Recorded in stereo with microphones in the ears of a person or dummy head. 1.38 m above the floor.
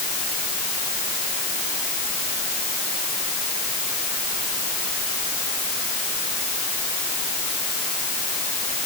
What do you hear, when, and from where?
Only background noise.